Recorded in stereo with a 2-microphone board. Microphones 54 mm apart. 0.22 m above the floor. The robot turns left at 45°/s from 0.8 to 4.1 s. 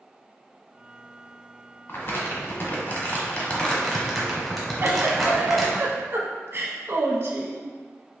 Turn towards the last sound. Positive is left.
turn(degrees=-50)  # may be behind; listen again after turning